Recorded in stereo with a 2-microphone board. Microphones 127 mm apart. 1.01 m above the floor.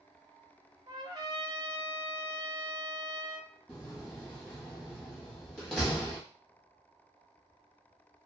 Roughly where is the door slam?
Centre.